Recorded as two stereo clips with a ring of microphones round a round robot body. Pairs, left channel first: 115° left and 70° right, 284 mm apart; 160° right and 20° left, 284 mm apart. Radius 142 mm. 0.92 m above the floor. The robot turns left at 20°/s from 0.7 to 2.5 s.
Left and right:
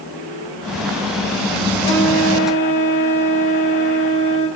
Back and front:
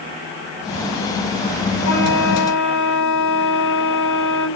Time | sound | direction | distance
1.8 | a flute | 165° right | 8 m